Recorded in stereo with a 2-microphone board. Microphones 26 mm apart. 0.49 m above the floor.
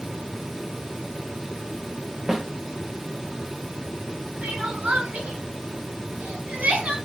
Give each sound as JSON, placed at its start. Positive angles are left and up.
{"t": 2.3, "sound": "a snare drum", "side_deg": -15, "distance_m": 1.7}
{"t": 4.4, "sound": "crying", "side_deg": -70, "distance_m": 2.5}